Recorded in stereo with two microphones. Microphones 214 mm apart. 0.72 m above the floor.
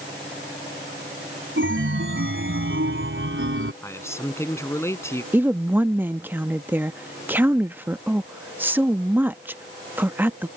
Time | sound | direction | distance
1.6 | a chime | 70° right (ahead or behind) | ?
3.8 | a man speaking | 10° left (ahead or behind) | ?
5.3 | a woman speaking | 10° right (ahead or behind) | ?